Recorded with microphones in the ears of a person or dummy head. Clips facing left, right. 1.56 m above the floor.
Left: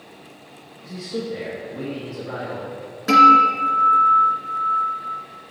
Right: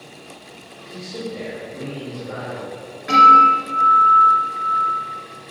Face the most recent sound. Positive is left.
turn(degrees=55)  # may be behind; listen again after turning